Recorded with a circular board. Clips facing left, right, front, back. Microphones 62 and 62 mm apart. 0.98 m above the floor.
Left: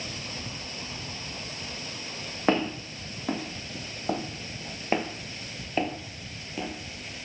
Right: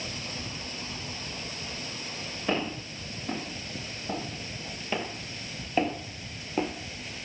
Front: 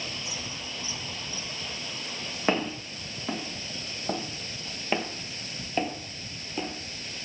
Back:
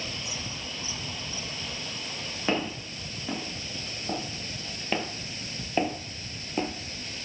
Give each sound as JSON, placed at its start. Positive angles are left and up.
{"t": 2.5, "sound": "footsteps", "azimuth_deg": 65, "distance_m": 3.5}